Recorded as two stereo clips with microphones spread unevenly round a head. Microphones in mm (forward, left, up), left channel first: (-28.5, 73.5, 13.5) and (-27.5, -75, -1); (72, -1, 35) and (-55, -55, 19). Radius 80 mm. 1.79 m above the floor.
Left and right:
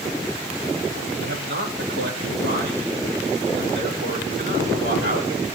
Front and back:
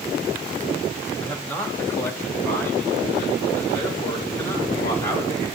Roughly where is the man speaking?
Ahead right.